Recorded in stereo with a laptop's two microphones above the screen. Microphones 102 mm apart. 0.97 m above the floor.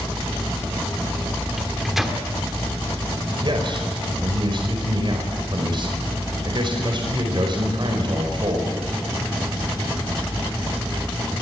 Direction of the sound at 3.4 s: 50° right (ahead or behind).